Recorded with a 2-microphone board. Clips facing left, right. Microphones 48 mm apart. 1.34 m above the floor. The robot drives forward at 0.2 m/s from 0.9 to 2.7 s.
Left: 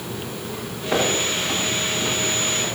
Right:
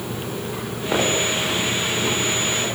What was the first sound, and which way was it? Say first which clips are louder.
Footsteps: right 1 dB; 10° right (ahead or behind).